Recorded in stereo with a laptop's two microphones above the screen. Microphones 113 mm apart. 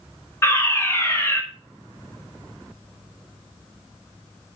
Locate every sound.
0.4 s a fire alarm: 25° left (ahead or behind), 1.7 m